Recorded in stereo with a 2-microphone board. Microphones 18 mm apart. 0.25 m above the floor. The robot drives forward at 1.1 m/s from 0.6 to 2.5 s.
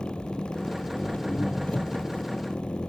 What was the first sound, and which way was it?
An engine running, 70° left (ahead or behind).